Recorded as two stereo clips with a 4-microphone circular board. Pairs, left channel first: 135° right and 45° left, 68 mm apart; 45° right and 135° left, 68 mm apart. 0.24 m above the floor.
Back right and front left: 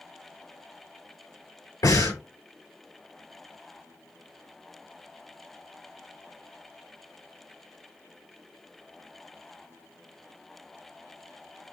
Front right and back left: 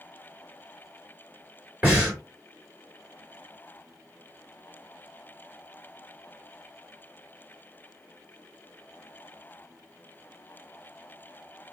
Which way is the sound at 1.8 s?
155° right.